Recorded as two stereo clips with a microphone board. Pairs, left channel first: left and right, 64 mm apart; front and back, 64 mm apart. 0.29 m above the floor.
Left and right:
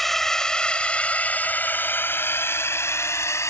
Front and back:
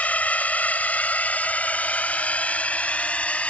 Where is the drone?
10° left; by 3.5 s 65° left.